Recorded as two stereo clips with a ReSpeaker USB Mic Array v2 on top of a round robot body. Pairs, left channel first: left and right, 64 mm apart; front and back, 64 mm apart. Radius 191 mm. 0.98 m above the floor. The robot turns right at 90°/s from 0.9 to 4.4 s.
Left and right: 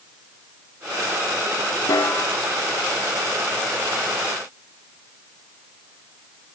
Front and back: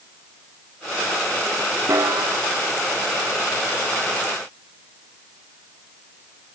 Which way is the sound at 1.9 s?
125° left.